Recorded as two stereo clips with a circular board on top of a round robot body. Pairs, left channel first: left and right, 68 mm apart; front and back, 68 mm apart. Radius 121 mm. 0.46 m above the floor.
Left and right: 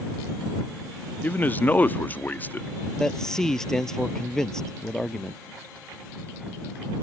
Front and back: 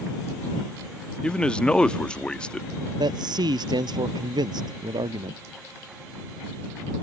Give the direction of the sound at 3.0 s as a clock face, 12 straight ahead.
6 o'clock.